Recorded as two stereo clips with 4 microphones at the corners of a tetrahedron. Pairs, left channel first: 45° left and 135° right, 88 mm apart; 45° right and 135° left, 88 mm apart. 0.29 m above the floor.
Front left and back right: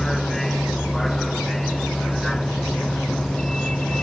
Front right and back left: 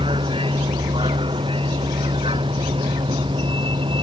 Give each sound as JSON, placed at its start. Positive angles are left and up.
{"t": 0.0, "sound": "a vehicle", "azimuth_deg": 130}